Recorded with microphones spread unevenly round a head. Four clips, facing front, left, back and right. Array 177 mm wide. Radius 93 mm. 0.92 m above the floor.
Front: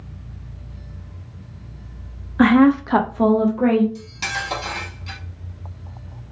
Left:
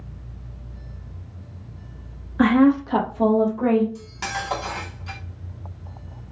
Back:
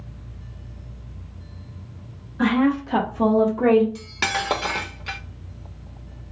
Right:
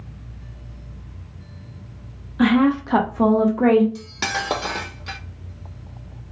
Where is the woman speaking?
Straight ahead, 0.8 m; by 3.9 s 115° right, 0.9 m.